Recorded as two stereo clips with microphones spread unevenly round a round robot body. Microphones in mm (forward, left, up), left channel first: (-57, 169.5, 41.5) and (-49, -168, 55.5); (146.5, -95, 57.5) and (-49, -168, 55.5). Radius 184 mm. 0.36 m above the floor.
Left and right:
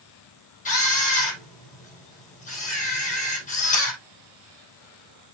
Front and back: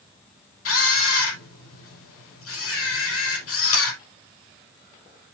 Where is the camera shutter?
20° left, 5 m.